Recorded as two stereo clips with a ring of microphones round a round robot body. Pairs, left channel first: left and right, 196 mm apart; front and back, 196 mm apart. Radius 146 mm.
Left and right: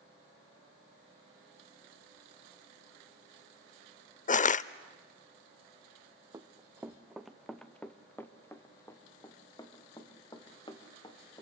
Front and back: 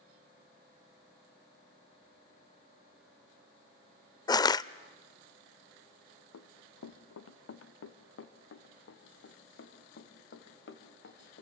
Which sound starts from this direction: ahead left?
Crushing, at 4.3 s.